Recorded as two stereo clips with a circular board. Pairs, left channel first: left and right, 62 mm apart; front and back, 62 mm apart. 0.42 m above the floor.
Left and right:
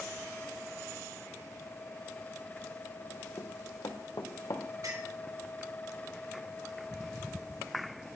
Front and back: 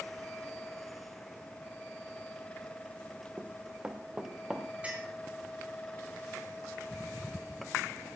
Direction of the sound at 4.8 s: 115° right.